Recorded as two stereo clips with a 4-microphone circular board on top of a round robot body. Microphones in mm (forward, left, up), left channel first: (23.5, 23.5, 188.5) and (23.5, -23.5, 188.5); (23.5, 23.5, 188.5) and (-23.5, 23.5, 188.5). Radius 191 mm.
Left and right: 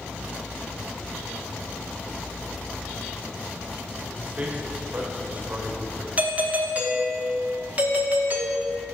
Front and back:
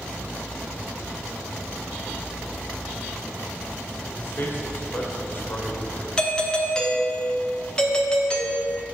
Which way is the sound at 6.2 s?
60° right.